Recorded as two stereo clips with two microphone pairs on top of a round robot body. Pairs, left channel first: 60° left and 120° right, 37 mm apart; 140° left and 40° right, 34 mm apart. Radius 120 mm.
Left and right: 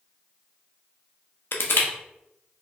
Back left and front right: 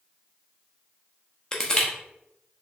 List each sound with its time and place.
1.5 s crushing: 70° left, 0.8 m